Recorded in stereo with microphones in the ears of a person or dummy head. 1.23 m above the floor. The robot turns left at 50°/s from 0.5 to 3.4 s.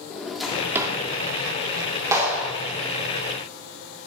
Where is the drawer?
5° right (ahead or behind), 1.6 m; by 1.0 s 25° right (ahead or behind), 1.6 m.